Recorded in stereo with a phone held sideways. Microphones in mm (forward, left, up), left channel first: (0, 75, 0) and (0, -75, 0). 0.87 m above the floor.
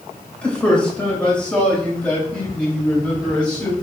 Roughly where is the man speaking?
Centre.